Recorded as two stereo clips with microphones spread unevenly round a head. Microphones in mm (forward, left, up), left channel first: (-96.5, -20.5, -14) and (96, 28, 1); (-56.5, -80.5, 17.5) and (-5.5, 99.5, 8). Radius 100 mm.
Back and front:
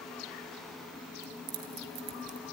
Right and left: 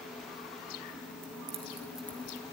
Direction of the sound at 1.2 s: 25° left.